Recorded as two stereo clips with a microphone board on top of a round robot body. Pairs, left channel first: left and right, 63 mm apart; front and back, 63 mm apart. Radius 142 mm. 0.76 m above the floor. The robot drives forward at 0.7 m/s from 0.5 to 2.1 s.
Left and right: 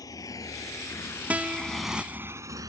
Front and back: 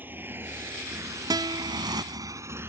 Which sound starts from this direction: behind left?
A motorcycle, at 0.0 s.